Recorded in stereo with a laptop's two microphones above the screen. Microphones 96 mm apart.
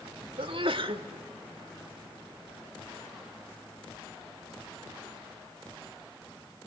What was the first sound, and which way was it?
A sneeze, 60° right (ahead or behind).